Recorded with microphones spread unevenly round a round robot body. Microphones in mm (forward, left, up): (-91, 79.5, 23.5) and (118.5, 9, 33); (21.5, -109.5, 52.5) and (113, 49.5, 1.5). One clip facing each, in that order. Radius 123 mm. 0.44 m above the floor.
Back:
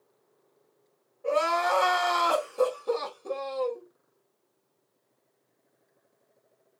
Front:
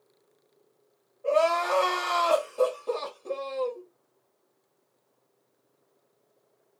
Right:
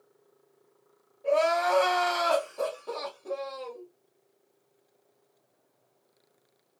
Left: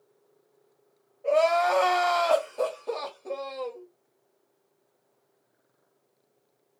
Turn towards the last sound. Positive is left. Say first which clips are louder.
# front 2 dB, left 2 dB
turn(degrees=110)